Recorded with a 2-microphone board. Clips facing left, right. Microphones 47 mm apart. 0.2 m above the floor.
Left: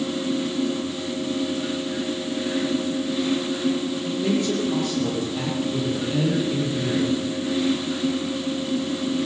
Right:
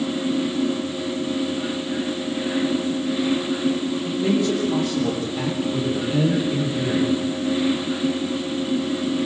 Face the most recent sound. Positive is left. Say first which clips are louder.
# right 2 dB
turn(degrees=-10)  # may be behind; listen again after turning